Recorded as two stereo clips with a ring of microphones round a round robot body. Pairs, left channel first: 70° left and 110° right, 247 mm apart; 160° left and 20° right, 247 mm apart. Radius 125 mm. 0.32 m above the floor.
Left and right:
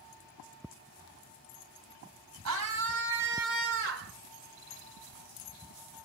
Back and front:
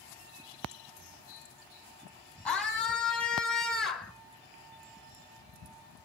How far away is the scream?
About 3.5 m.